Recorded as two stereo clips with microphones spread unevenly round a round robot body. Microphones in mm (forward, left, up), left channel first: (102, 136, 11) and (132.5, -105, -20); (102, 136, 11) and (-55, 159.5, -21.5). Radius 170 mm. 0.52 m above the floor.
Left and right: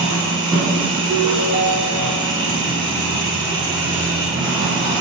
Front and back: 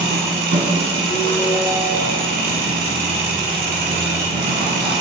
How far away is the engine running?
About 1.1 m.